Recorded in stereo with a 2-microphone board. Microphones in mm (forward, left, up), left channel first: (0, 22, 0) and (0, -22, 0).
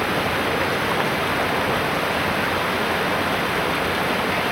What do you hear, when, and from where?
0.0 s running water: centre (ahead or behind)